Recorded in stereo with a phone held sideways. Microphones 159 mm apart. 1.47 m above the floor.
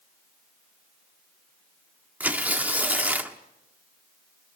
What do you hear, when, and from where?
2.2 s tearing paper: 10° right (ahead or behind), 1.1 m